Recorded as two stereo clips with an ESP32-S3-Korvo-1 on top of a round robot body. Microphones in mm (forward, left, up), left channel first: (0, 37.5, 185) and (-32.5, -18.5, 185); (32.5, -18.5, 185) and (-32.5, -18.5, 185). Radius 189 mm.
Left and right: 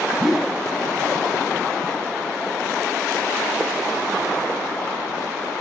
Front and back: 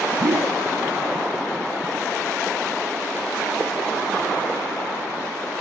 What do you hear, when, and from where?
0.2 s a whoosh: 155° left